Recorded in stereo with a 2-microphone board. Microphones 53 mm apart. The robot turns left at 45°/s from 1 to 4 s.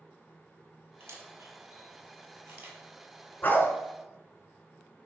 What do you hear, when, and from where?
1.0 s a camera shutter: 55° right (ahead or behind), 1.0 m; by 2.8 s 40° right (ahead or behind), 1.0 m
3.4 s a dog barking: 40° left (ahead or behind), 0.8 m; by 3.7 s 45° left (ahead or behind), 0.8 m